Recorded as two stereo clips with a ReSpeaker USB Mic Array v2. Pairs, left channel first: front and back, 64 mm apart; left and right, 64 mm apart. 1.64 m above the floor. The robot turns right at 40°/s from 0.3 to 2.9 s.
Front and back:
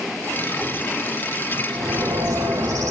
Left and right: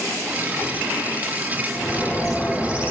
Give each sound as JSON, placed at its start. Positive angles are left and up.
{"t": 1.7, "sound": "a bird", "azimuth_deg": 155, "distance_m": 3.0}